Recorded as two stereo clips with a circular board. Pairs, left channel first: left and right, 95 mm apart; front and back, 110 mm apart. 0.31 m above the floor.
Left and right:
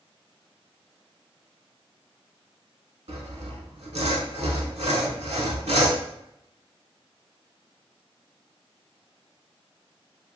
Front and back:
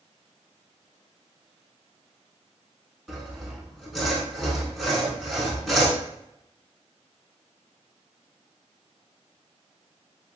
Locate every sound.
3.1 s sawing: 90° right, 0.6 m